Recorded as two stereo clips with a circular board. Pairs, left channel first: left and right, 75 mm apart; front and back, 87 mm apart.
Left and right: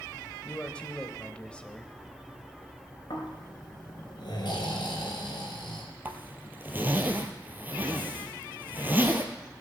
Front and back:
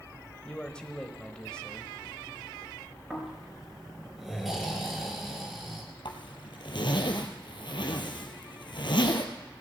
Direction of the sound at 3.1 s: 95° left.